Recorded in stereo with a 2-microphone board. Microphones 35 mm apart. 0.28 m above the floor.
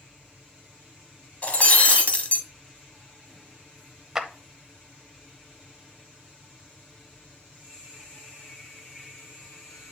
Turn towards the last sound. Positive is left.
turn(degrees=-10)  # may be behind; listen again after turning